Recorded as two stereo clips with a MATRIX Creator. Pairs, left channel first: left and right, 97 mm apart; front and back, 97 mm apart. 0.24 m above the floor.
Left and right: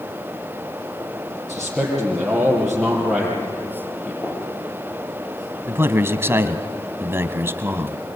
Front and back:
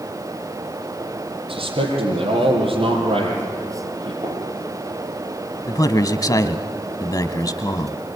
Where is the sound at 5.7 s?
35° right, 1.4 m.